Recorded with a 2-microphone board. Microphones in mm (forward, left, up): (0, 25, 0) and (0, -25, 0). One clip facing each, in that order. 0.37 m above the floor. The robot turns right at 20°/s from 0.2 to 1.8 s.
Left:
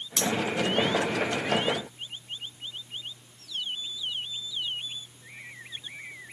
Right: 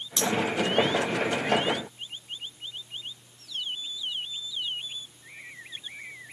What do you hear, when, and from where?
0.2 s cutlery clinking: 65° left (ahead or behind), 2 m